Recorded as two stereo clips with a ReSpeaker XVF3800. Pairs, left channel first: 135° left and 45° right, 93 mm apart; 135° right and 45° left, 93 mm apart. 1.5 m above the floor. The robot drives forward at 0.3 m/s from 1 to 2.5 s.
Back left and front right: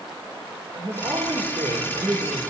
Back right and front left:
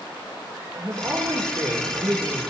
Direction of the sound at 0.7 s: 10° right.